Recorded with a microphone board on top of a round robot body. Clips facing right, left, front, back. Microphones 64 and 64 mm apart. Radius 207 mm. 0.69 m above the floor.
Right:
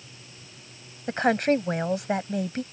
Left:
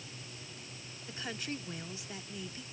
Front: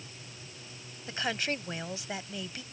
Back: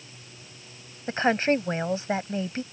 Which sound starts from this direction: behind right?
A woman speaking, at 1.1 s.